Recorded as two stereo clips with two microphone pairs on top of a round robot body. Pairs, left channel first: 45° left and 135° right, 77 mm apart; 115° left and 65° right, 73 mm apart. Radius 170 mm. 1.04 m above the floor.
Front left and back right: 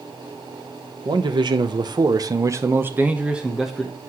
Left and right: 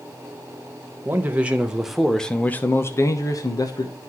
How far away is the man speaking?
About 1.6 m.